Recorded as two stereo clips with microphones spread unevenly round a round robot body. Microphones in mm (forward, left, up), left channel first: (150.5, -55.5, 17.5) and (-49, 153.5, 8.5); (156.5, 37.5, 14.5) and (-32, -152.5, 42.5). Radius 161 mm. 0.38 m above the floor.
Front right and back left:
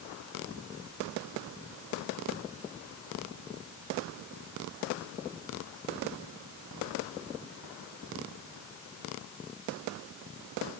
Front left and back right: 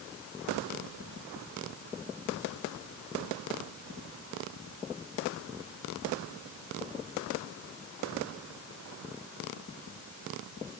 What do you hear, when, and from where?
Only background noise.